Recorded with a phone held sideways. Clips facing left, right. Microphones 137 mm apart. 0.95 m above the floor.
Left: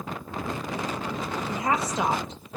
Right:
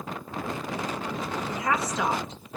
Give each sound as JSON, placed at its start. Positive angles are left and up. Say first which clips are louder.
{"t": 1.5, "sound": "a woman speaking", "louder": "left 2 dB", "side_deg": 30, "distance_m": 0.9}